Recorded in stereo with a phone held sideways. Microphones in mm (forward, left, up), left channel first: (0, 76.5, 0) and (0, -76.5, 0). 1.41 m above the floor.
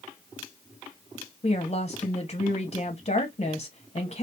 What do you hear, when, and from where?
1.4 s a woman speaking: 40° left (ahead or behind), 0.8 m